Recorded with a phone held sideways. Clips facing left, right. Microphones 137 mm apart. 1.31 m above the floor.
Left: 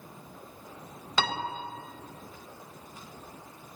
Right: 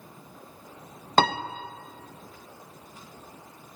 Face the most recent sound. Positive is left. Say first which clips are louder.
# right 8 dB
turn(degrees=-50)  # may be behind; listen again after turning